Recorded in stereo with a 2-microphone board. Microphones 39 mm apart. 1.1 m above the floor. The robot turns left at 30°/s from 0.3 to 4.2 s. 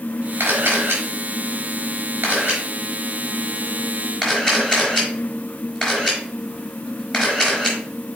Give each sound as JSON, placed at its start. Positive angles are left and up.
{"t": 0.4, "sound": "a camera shutter", "side_deg": -80, "distance_m": 4.5}